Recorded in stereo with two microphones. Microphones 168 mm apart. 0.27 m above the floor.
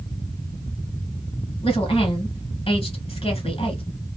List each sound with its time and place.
1.6 s a woman speaking: 35° left (ahead or behind), 1.8 m